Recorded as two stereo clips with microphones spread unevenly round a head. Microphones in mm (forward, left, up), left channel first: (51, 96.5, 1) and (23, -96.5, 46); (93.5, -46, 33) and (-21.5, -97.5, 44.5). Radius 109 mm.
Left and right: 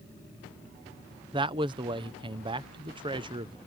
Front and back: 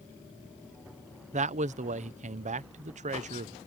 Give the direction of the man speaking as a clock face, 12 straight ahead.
6 o'clock.